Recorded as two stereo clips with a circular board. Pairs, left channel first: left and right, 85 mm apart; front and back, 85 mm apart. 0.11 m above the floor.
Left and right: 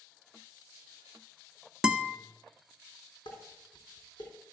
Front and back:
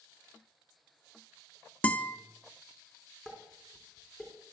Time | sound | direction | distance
1.8 | a guitar | 25° right | 0.5 m
3.2 | dishes clattering | 100° left | 3.5 m